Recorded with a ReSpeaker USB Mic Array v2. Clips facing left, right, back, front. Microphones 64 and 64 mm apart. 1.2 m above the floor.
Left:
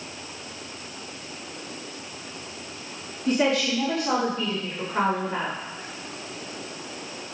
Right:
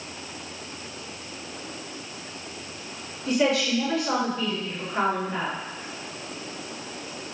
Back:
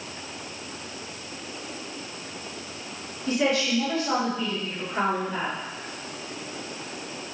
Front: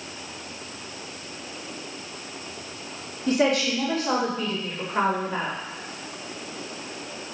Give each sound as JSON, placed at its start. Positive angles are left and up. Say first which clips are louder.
{"t": 3.3, "sound": "a woman speaking", "louder": "even, front 2 dB", "azimuth_deg": 45, "distance_m": 3.0}